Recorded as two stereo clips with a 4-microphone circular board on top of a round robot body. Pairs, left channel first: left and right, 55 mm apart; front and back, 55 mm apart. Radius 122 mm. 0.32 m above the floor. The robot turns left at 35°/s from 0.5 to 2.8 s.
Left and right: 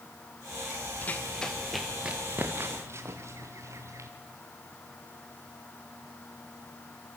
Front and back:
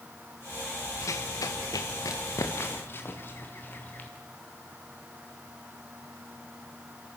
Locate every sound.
1.0 s running footsteps: 35° left, 3 m; by 4.1 s 60° right, 4 m